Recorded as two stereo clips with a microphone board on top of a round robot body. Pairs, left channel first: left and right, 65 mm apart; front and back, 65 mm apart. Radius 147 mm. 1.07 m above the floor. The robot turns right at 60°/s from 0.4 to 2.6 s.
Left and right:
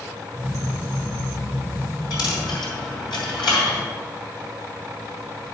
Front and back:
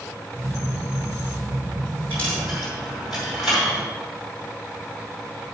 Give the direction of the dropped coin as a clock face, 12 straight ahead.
10 o'clock.